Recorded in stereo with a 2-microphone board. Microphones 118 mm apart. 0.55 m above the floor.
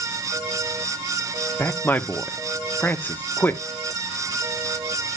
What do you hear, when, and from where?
1.6 s a man speaking: 15° left (ahead or behind), 0.7 m